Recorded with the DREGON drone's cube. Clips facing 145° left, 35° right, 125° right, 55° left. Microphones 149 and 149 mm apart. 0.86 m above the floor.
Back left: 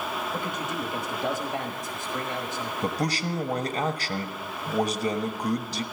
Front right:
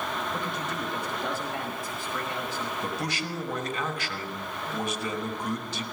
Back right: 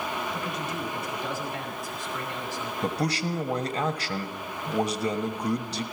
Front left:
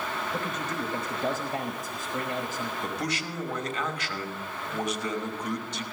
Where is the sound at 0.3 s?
75° left, 1.2 m.